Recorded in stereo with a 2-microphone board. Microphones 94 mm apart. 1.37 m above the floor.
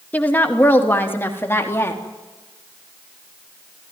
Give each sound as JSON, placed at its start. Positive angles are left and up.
{"t": 0.1, "sound": "a woman speaking", "side_deg": 20, "distance_m": 2.5}